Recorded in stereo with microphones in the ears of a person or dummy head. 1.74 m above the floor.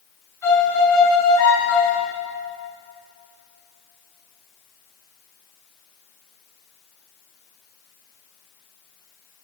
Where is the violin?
15° left (ahead or behind), 5 m.